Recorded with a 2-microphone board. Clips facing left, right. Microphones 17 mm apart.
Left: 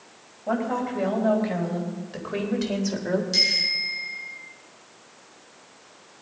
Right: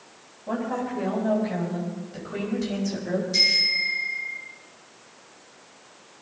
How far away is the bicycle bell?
About 6 m.